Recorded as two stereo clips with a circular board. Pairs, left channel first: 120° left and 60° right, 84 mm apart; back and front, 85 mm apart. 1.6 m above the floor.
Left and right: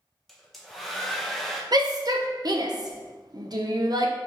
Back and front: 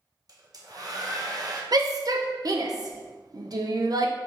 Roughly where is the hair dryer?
Ahead left.